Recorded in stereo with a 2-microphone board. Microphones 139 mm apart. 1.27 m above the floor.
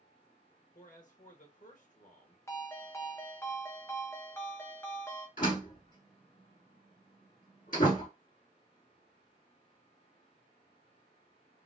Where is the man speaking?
60° left (ahead or behind), 1.0 m.